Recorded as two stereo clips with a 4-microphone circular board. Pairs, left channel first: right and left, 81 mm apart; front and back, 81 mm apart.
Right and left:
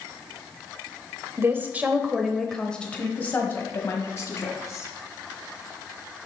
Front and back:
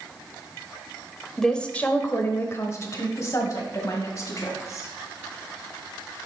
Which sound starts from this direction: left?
A woman speaking, at 1.4 s.